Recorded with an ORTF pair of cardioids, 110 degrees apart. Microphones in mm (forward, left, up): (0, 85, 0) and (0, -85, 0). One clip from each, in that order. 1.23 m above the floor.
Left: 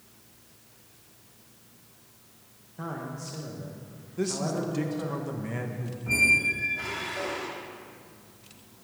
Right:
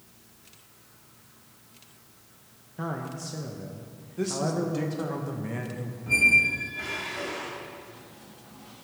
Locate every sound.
2.8 s a man speaking: 20° right, 1.2 m
4.2 s a man speaking: 5° left, 1.3 m
6.1 s a squeak: 15° left, 2.5 m